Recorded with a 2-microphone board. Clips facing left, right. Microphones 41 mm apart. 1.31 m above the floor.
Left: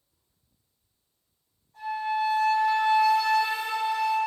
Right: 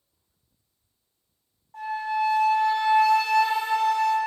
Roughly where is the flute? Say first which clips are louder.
Right 1 dB; right.